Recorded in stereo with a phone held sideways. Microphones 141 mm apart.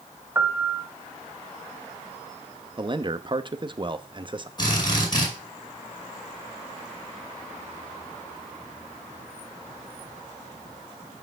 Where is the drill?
30° left (ahead or behind), 5 m.